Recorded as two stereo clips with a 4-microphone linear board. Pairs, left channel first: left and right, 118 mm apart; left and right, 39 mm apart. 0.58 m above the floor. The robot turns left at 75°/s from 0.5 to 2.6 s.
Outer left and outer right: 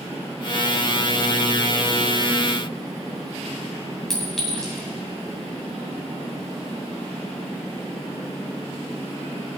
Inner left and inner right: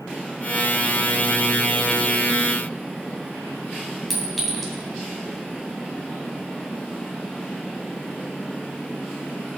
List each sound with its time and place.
4.1 s a clink: 5° left (ahead or behind), 2.5 m